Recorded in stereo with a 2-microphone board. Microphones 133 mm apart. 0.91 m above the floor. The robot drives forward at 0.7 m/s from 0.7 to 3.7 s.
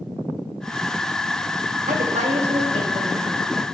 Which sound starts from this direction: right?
A woman speaking, at 1.9 s.